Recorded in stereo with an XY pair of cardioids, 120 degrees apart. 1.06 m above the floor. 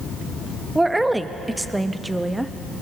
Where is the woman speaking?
10° right, 0.9 m.